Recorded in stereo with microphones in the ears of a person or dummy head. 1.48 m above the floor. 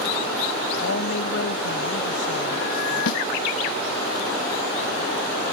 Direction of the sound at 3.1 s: 60° left (ahead or behind).